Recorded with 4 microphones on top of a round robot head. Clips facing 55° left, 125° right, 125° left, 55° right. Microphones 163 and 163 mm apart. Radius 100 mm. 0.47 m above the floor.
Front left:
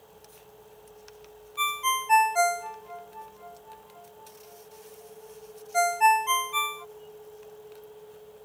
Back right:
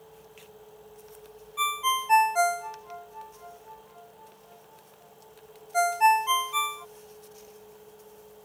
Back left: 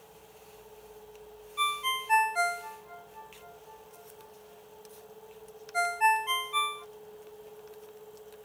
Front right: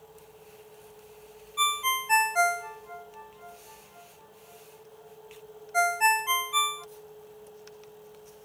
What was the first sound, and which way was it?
A ringtone, 35° right.